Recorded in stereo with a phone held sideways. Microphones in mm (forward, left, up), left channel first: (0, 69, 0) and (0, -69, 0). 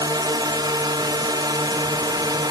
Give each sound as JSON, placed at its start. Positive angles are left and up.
{"t": 0.0, "sound": "a drone", "side_deg": -30}